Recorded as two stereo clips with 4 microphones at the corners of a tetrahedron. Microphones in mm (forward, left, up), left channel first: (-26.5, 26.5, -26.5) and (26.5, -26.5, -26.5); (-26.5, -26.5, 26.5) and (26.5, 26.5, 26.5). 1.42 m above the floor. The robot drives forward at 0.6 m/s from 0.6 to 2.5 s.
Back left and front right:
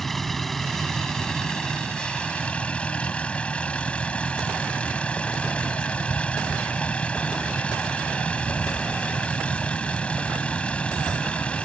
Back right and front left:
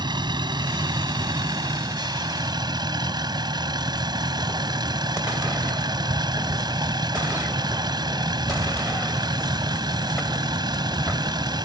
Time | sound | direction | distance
0.0 | a vehicle | 45° left | ?